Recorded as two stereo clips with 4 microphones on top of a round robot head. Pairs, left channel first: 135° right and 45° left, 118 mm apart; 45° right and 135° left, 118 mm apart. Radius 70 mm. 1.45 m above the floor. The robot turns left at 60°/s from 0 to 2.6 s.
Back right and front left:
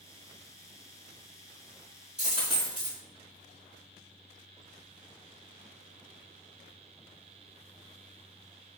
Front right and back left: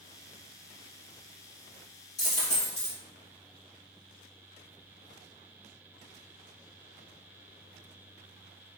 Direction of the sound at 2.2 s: 35° right.